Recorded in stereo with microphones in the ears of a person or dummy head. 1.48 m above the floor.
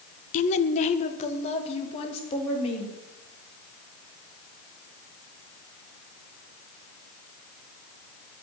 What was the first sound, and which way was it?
A woman speaking, 40° left (ahead or behind).